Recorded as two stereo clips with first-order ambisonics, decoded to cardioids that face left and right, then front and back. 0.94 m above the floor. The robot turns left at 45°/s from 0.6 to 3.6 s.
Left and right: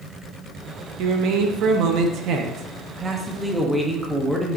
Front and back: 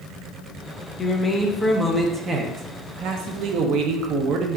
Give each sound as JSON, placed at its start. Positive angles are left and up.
{"t": 1.0, "sound": "a man speaking", "azimuth_deg": -60, "distance_m": 0.6}